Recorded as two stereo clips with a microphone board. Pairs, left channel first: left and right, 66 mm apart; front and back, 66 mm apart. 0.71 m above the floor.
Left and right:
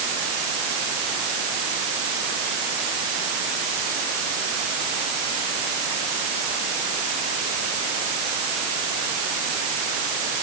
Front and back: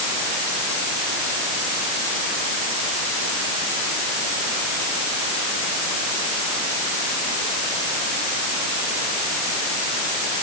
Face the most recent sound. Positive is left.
No sound to turn to.